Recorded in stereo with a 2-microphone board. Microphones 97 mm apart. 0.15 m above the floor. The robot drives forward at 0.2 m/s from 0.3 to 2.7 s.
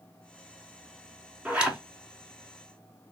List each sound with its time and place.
1.4 s a zipper: 10° right (ahead or behind), 0.5 m